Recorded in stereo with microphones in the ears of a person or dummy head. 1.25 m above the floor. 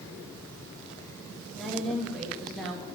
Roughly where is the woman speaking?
Centre.